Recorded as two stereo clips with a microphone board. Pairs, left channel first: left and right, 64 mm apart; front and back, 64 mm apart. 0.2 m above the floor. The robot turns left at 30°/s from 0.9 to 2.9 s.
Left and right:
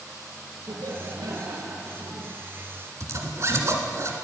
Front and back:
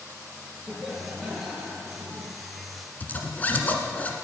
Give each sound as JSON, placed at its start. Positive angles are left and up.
{"t": 0.7, "sound": "laughter", "azimuth_deg": -75, "distance_m": 4.0}
{"t": 3.0, "sound": "a zipper", "azimuth_deg": -60, "distance_m": 1.7}